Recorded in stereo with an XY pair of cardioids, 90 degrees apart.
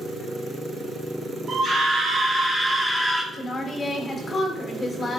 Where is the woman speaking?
30° left, 1.4 m.